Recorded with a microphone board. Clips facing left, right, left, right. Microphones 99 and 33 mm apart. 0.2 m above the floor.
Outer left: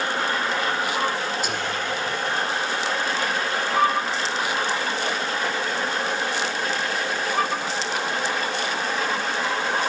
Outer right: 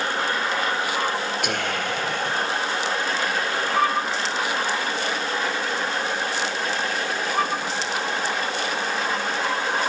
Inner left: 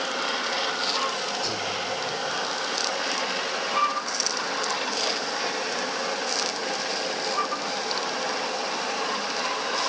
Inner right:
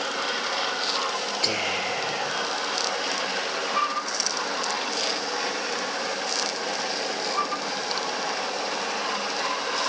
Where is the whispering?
65° right (ahead or behind), 3 m.